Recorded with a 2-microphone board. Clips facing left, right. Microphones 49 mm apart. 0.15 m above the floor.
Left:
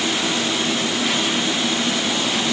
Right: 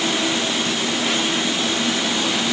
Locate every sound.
Only background noise.